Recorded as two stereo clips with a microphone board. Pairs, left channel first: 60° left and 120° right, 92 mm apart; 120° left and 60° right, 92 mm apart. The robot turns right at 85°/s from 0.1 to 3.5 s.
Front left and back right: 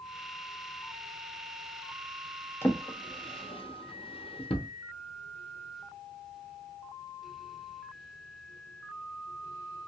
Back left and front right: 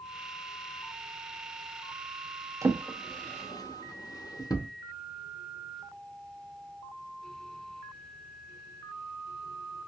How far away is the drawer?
About 0.6 m.